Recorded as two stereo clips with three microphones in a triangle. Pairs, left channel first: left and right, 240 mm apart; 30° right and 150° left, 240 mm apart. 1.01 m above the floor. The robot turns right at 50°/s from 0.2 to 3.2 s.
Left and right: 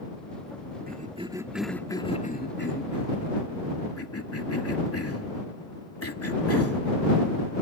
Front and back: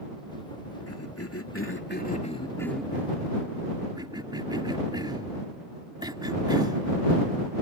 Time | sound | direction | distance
0.9 | a cough | 40° right | ?